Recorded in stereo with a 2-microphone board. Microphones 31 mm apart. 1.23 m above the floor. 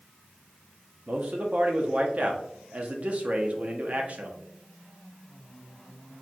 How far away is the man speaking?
About 0.8 m.